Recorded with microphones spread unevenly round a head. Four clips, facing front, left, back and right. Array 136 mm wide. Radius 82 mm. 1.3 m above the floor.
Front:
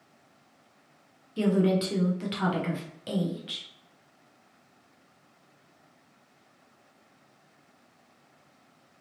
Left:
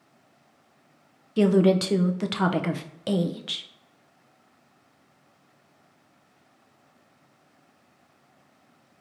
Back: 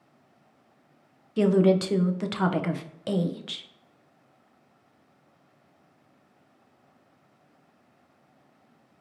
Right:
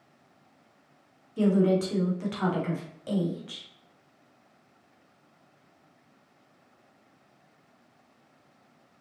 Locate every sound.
1.4 s a woman speaking: 90° left, 0.5 m